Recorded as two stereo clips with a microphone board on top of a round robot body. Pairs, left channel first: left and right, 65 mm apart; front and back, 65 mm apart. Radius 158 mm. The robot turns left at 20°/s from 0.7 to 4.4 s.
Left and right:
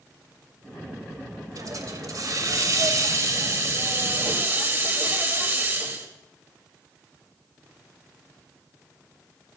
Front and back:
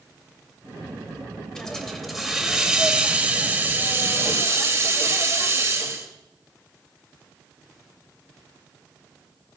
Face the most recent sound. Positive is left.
turn(degrees=-135)